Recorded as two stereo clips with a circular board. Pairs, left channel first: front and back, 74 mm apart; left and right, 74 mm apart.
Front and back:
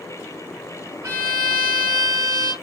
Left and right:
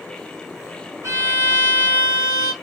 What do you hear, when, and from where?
1.0 s a violin: 135° right, 2 m